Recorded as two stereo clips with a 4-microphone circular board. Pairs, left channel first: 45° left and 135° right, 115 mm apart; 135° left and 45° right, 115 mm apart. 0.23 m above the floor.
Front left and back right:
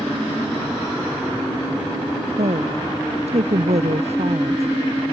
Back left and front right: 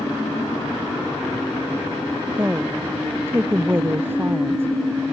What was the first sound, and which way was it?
A woman speaking, 115° right.